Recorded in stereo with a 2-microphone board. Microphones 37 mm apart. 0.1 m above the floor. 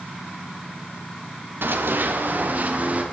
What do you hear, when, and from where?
1.6 s running footsteps: 70° right (ahead or behind), 1.9 m; by 3.0 s 40° right (ahead or behind), 2.5 m